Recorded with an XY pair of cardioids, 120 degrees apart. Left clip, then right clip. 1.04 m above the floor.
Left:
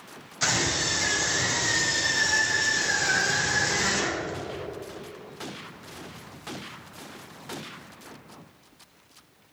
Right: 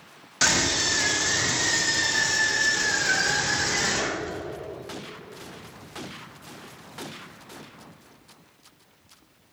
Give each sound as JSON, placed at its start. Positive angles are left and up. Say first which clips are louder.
{"t": 0.4, "sound": "a scream", "louder": "right 3 dB", "azimuth_deg": -65, "distance_m": 2.5}